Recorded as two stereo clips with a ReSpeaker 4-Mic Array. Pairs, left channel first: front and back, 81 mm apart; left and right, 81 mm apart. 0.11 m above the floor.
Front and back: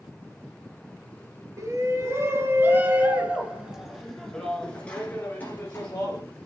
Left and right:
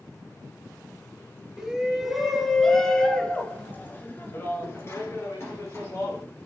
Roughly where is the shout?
Behind.